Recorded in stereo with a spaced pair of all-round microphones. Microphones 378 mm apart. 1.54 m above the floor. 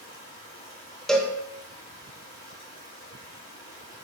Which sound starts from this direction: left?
Running water, at 0.0 s.